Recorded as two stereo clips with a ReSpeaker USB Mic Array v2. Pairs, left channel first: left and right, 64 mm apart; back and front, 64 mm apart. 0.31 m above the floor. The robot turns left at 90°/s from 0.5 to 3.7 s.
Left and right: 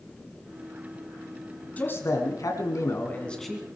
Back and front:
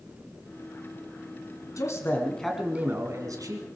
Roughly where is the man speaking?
Behind left.